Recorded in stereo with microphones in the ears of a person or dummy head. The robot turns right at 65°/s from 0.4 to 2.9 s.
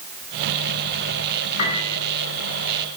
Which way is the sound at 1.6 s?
35° left (ahead or behind).